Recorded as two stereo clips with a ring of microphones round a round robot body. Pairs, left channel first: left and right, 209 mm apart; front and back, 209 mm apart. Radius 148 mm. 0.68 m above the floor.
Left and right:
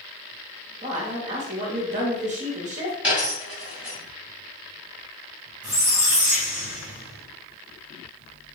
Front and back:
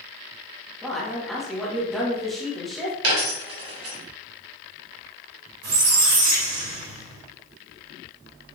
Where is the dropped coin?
175° right, 1.8 m.